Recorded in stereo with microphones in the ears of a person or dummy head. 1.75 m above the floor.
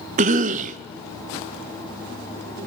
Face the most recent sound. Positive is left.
turn(degrees=-40)  # may be behind; listen again after turning